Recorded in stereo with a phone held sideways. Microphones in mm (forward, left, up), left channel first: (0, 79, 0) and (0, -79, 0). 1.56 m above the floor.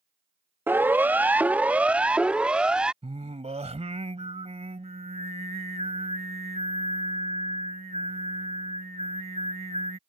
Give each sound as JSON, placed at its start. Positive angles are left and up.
{"t": 0.7, "sound": "a siren", "side_deg": -10}
{"t": 3.0, "sound": "singing", "side_deg": -40}